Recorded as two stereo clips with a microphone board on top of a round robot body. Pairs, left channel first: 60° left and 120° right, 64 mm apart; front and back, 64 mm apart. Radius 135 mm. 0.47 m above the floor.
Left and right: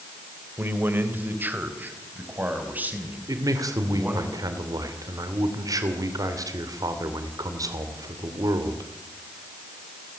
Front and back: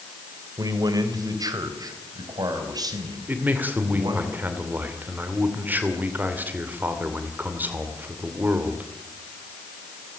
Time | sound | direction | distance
0.6 | a man speaking | 175° right | 2.5 m
3.3 | a man speaking | 120° right | 2.5 m